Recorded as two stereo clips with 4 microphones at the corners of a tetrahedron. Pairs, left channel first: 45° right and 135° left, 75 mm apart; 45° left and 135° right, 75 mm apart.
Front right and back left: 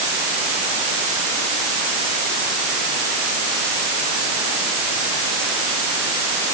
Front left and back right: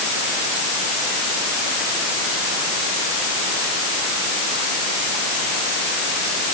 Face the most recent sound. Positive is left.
No sound to turn to.